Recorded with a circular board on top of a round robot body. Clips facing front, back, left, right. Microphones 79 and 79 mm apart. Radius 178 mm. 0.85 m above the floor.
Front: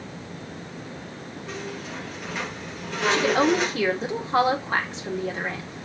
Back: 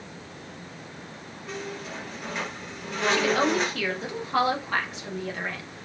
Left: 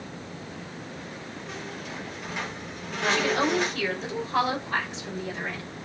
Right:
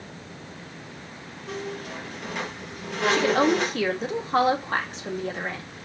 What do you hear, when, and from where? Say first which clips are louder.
1.5 s a squeak: even, right 7 dB; 90° right, 3 m
3.1 s a woman speaking: front 3 dB, right 4 dB; 60° right, 1.9 m